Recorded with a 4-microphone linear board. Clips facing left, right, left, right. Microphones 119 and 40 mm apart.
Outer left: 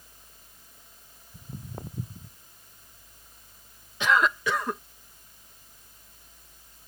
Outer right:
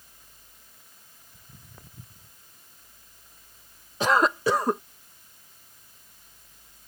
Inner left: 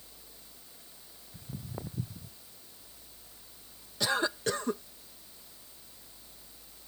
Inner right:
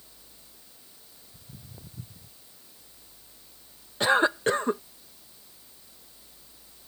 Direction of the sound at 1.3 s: 45° left (ahead or behind).